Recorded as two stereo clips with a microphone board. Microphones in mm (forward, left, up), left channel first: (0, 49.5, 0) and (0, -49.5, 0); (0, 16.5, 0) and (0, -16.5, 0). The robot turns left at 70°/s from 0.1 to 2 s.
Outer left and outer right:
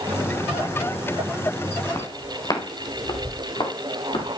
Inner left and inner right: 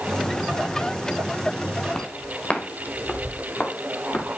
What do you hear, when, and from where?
1.9 s footsteps: 30° left (ahead or behind), 3 m; by 4.3 s 70° left (ahead or behind), 4.5 m